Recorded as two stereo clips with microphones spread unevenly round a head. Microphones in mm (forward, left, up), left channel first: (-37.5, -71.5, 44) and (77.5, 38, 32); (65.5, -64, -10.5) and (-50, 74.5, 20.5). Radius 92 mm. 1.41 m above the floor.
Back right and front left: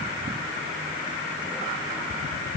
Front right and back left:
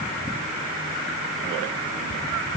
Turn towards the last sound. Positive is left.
No sound to turn to.